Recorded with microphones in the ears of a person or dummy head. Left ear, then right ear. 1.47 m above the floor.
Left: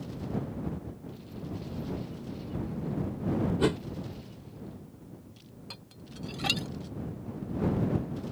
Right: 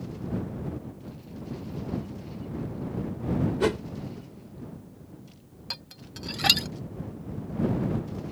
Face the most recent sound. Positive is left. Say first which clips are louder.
# right 10 dB
turn(degrees=-30)  # may be behind; listen again after turning